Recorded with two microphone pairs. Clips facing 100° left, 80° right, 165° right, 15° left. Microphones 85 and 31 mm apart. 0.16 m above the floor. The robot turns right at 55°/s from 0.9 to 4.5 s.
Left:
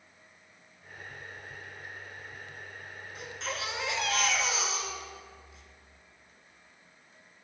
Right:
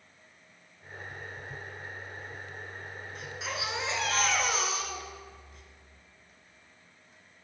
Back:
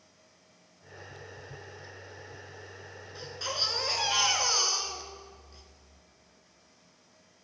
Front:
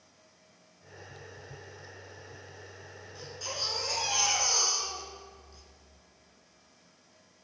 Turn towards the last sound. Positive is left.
turn(degrees=-100)